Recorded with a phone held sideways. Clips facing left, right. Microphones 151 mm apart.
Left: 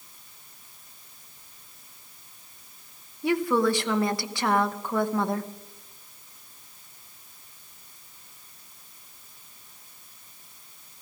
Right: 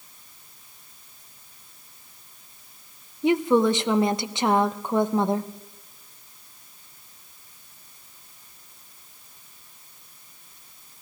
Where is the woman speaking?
20° right (ahead or behind), 0.8 m.